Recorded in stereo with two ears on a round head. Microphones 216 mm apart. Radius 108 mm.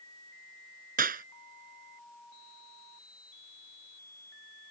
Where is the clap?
35° right (ahead or behind).